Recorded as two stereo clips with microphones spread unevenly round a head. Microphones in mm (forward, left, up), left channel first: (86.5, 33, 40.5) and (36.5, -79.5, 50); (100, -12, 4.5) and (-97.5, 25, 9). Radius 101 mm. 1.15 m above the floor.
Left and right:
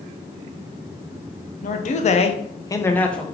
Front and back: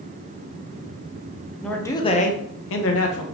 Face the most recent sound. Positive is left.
turn(degrees=-15)